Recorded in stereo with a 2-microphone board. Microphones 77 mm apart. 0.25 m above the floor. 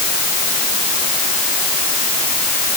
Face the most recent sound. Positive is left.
No sound to turn to.